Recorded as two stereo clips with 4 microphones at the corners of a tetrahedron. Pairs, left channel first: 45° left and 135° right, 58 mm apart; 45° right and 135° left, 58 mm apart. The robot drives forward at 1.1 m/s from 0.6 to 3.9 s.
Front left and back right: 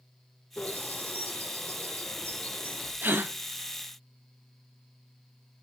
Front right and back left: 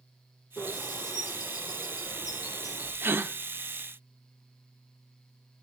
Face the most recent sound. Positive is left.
turn(degrees=180)